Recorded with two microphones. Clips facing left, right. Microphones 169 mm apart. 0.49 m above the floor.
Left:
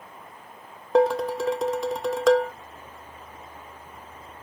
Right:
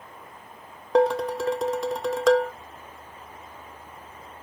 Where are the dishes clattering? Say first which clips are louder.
Even; 5° left (ahead or behind), 0.6 m.